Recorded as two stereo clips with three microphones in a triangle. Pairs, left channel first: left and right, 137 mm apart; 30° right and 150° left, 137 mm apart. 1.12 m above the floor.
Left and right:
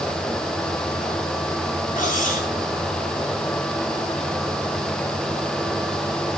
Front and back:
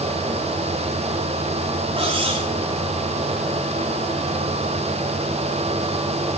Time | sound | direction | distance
2.0 | cutlery clinking | 105° left | 6.5 m